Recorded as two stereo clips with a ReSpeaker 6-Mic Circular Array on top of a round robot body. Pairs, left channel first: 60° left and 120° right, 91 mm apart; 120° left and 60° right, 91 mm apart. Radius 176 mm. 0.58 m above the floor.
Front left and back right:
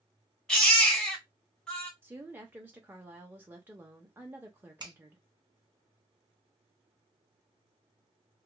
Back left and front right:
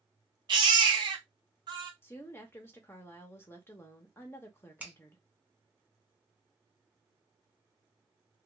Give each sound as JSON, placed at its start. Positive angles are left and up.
{"t": 0.5, "sound": "a baby crying", "azimuth_deg": -20, "distance_m": 1.1}
{"t": 2.0, "sound": "a woman speaking", "azimuth_deg": 175, "distance_m": 0.8}
{"t": 4.8, "sound": "a finger snap", "azimuth_deg": -130, "distance_m": 1.2}